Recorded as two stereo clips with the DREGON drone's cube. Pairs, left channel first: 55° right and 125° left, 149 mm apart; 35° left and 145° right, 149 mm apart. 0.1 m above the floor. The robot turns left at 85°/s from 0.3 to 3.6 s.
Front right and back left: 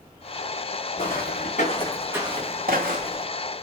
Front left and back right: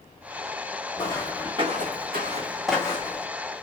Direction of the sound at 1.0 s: 20° right.